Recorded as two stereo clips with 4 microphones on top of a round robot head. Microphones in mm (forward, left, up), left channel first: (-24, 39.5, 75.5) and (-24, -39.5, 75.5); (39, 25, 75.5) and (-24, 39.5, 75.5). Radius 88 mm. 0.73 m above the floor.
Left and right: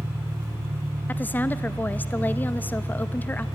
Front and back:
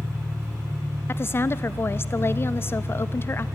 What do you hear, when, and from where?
0.0 s an engine running: 150° right, 2.5 m
1.1 s a woman speaking: 30° left, 0.6 m